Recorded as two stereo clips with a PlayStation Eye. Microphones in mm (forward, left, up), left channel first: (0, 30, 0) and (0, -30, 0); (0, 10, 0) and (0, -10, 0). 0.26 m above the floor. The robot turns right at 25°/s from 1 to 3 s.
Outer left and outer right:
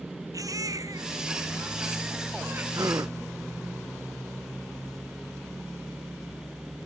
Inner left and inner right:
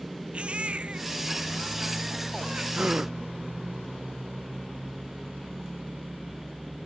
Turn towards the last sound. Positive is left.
turn(degrees=-60)  # may be behind; listen again after turning